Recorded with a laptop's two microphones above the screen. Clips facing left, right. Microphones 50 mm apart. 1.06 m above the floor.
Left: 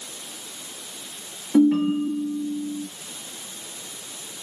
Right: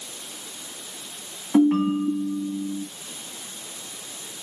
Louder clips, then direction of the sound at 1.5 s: Left 1 dB; 45° right (ahead or behind).